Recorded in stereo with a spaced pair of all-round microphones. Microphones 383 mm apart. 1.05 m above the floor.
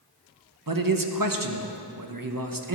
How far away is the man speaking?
About 0.9 m.